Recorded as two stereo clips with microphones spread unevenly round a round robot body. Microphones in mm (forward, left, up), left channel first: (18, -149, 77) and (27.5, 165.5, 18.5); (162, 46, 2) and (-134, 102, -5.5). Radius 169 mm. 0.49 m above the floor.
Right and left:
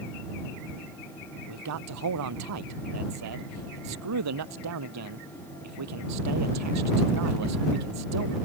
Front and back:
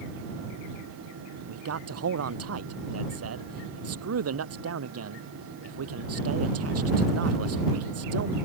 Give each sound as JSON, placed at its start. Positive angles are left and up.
{"t": 1.5, "sound": "a man speaking", "azimuth_deg": 130}